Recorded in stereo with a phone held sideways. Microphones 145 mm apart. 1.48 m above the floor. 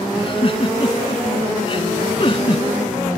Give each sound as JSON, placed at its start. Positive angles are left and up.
{"t": 0.1, "sound": "a giggle", "side_deg": 35}